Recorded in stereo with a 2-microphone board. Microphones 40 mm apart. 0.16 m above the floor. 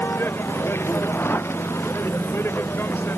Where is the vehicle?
80° left; by 3.2 s 65° left (ahead or behind).